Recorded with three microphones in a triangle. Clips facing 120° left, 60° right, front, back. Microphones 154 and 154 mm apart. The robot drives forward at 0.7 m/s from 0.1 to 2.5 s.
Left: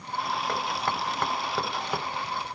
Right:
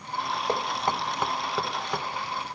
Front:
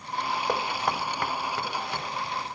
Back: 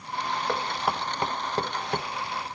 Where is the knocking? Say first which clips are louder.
Right 2 dB, even; 55° right, 0.8 m; by 2.1 s 160° right, 1.2 m.